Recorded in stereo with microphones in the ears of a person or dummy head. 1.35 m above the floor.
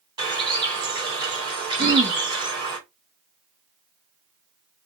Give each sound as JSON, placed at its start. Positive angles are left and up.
{"t": 0.2, "sound": "a bird", "side_deg": -25, "distance_m": 3.0}
{"t": 1.8, "sound": "throat clearing", "side_deg": -25, "distance_m": 1.5}